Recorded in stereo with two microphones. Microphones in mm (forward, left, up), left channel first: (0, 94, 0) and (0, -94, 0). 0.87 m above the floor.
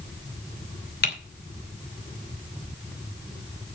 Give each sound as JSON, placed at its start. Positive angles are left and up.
{"t": 1.0, "sound": "typing on a keyboard", "side_deg": 60, "distance_m": 2.5}